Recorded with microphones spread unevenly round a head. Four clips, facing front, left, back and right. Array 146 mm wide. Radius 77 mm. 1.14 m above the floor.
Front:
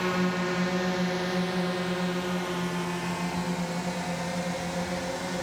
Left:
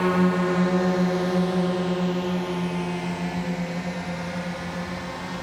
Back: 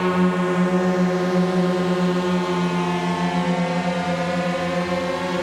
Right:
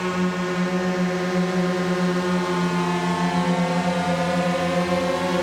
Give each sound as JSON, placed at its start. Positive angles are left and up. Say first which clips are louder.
{"t": 0.0, "sound": "a drone", "louder": "left 3 dB, back 8 dB", "azimuth_deg": 155}